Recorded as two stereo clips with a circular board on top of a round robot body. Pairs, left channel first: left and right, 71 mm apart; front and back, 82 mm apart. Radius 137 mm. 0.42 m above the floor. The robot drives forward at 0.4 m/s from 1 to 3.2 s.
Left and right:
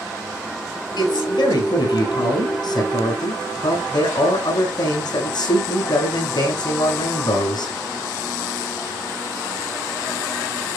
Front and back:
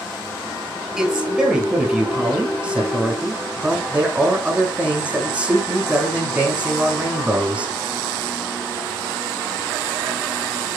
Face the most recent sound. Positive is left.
turn(degrees=110)